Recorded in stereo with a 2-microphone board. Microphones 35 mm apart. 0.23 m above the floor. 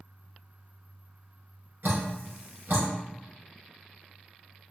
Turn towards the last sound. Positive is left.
turn(degrees=-70)  # may be behind; listen again after turning